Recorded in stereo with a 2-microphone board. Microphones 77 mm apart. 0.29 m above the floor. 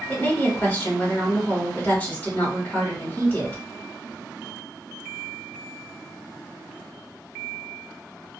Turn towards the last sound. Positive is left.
turn(degrees=25)  # may be behind; listen again after turning